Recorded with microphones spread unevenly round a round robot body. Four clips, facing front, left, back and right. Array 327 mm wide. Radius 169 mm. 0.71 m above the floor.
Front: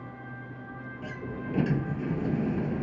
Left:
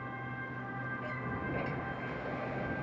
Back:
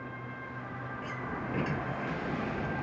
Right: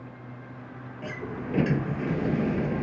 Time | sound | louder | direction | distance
1.0 | a sliding door | right 8 dB, front 2 dB | 55° right | ?